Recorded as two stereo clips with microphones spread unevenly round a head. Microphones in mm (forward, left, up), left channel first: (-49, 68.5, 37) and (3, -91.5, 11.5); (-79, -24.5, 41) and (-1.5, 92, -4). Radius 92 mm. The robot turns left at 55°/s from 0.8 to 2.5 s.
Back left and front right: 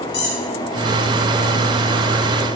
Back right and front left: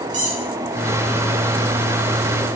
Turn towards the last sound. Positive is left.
turn(degrees=0)